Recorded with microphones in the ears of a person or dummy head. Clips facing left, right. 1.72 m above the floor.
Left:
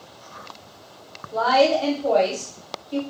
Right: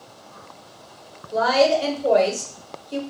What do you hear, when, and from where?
1.3 s a woman speaking: 15° right (ahead or behind), 1.0 m